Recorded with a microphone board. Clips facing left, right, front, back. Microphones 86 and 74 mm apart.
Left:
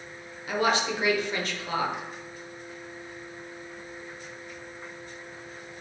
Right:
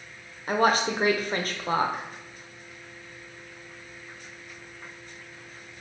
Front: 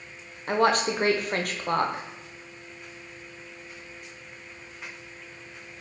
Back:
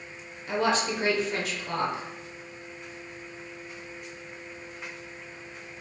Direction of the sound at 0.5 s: 40° right.